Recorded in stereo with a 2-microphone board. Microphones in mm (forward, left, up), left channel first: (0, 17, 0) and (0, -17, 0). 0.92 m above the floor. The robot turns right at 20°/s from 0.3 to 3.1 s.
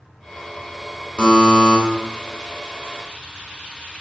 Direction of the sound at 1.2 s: 25° left (ahead or behind).